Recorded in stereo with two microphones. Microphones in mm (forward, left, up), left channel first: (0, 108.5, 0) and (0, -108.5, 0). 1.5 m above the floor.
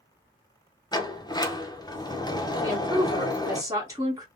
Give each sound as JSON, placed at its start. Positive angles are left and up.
{"t": 0.9, "sound": "a sliding door", "side_deg": 20, "distance_m": 0.6}
{"t": 2.6, "sound": "a woman speaking", "side_deg": -15, "distance_m": 1.3}